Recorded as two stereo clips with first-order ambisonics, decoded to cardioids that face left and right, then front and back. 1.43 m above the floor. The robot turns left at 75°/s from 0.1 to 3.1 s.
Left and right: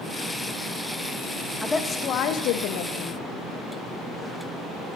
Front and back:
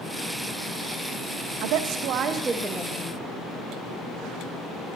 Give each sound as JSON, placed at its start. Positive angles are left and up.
{"t": 1.6, "sound": "a woman speaking", "azimuth_deg": 175, "distance_m": 0.5}